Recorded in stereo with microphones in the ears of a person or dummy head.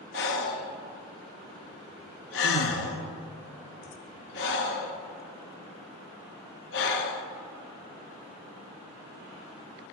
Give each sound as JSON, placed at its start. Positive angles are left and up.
{"t": 0.1, "sound": "breathing", "side_deg": 55, "distance_m": 0.6}